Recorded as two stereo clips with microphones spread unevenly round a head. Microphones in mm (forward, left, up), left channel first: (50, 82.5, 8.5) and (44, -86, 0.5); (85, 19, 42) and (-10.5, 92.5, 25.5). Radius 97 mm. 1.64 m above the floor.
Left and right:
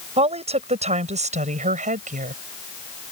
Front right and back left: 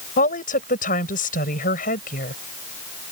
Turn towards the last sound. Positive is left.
turn(degrees=-50)